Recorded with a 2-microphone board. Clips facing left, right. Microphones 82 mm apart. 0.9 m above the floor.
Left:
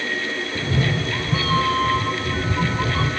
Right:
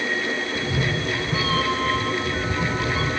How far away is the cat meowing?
About 1.3 m.